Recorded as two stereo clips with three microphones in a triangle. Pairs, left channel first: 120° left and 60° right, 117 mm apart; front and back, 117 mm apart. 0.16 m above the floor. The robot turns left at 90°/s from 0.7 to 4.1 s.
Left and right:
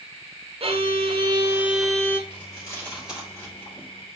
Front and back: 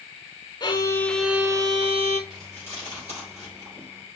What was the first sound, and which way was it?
A violin, 45° right.